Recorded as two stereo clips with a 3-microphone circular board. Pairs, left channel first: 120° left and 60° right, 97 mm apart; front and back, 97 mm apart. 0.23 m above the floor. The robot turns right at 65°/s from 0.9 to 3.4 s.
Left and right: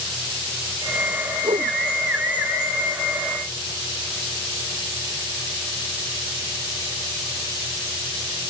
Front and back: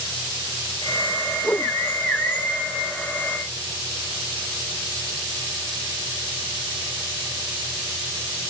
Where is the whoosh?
80° right; by 1.8 s 60° right.